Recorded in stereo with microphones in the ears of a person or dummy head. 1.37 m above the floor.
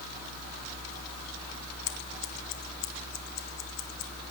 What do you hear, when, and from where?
1.9 s scissors: 75° left (ahead or behind), 0.7 m